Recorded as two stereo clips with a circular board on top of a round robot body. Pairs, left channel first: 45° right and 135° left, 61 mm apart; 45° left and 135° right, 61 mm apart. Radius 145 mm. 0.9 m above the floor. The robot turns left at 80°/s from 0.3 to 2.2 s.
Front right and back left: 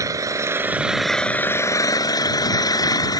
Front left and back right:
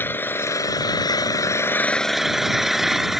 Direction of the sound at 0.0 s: 105° left.